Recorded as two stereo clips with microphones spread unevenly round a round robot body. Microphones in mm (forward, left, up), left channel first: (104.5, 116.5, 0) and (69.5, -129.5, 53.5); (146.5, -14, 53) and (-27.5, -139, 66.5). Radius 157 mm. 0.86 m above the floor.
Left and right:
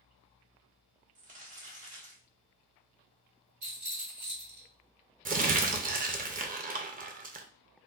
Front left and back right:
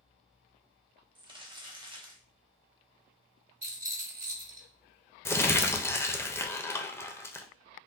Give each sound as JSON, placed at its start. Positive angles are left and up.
{"t": 1.1, "sound": "crumpling", "azimuth_deg": -120, "distance_m": 0.9}
{"t": 3.6, "sound": "a rattle", "azimuth_deg": -115, "distance_m": 1.7}
{"t": 5.2, "sound": "crumpling", "azimuth_deg": -35, "distance_m": 0.6}